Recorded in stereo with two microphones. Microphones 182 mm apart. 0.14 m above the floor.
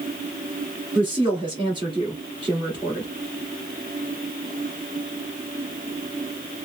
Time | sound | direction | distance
0.9 | a woman speaking | 25° right (ahead or behind) | 1.7 m